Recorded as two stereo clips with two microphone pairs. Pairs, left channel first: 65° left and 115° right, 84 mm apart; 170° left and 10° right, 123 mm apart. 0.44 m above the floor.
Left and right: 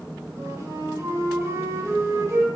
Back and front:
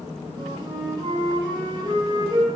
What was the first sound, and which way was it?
A flute, 65° right.